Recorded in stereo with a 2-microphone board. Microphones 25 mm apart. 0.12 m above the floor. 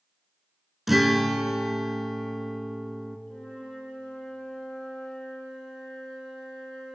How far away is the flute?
About 3 m.